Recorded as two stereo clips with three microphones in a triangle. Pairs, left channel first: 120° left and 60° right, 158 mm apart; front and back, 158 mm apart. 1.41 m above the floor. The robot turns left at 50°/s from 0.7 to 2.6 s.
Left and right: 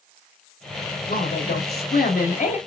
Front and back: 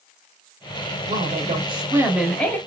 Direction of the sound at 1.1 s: 150° left.